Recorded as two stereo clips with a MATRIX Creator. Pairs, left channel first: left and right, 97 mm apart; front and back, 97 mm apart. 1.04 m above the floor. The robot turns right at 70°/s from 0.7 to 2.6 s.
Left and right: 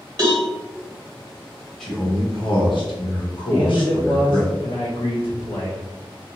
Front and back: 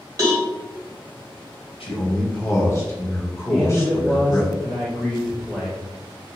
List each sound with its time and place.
0.2 s a cowbell: 130° right, 1.5 m
1.8 s a man speaking: 5° left, 1.0 m; by 4.5 s 60° left, 1.0 m
3.5 s a man speaking: 80° left, 1.0 m